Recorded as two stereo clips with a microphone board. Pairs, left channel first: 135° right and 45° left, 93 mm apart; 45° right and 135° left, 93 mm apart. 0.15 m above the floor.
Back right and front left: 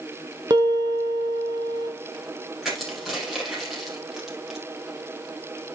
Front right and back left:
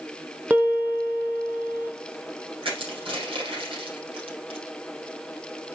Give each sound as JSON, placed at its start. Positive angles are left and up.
{"t": 0.5, "sound": "a piano", "azimuth_deg": 65, "distance_m": 1.2}
{"t": 2.6, "sound": "crushing", "azimuth_deg": 135, "distance_m": 4.5}